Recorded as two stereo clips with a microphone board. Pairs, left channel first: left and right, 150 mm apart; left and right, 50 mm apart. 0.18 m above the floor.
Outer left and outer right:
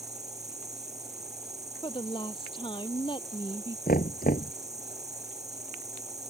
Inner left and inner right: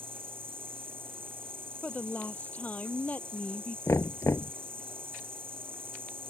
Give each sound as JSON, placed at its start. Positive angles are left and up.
{"t": 0.0, "sound": "an insect", "side_deg": -45}
{"t": 1.8, "sound": "a woman speaking", "side_deg": 30}
{"t": 3.9, "sound": "knocking", "side_deg": 70}